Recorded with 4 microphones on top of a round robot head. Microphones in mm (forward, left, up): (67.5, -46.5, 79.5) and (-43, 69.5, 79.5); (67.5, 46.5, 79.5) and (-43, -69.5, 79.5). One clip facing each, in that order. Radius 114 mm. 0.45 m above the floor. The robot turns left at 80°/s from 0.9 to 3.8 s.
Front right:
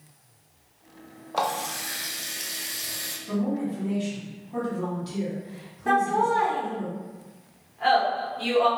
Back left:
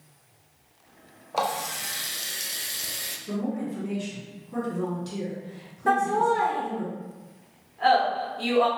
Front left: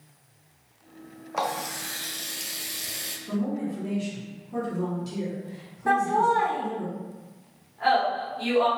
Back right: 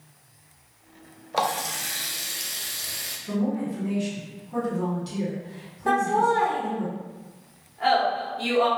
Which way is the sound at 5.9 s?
165° left.